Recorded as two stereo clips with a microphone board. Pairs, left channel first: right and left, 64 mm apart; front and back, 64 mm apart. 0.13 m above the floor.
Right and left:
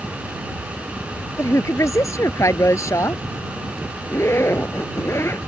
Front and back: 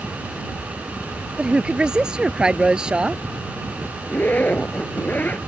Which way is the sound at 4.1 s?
55° right.